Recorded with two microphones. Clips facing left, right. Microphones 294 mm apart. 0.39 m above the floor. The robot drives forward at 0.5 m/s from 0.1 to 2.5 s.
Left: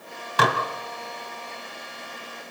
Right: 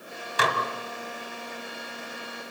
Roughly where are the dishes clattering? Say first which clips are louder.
Left 5 dB; left.